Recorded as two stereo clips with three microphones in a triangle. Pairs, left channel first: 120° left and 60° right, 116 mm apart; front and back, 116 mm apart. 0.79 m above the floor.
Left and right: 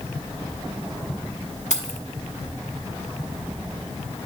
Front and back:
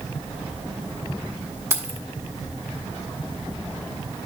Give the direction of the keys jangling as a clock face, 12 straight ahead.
8 o'clock.